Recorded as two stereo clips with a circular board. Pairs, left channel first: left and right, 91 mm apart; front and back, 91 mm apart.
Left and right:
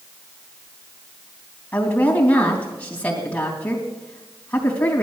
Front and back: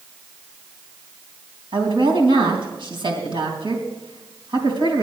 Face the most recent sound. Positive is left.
turn(degrees=160)